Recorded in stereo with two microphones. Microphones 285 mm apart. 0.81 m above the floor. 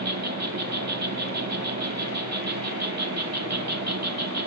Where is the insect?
65° right (ahead or behind), 1.1 m.